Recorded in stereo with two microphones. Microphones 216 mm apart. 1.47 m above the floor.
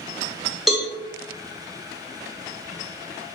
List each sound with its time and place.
0.7 s a cowbell: centre (ahead or behind), 0.8 m